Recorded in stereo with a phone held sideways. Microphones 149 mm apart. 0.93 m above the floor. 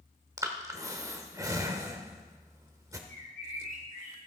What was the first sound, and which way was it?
Breathing, 20° right (ahead or behind).